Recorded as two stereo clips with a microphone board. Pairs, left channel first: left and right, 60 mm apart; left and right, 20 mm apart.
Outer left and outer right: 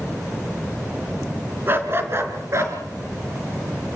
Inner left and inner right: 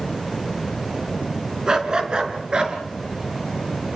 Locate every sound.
1.7 s a dog barking: 35° right (ahead or behind), 3.5 m; by 2.8 s 50° right (ahead or behind), 4.5 m